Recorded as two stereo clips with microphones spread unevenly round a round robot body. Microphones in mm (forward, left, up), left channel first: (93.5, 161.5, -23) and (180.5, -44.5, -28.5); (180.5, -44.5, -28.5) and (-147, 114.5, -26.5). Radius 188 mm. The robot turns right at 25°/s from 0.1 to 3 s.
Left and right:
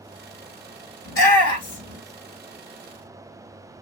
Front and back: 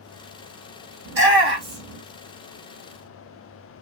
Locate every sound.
1.1 s a shout: 100° left, 1.8 m; by 2.0 s 125° left, 1.8 m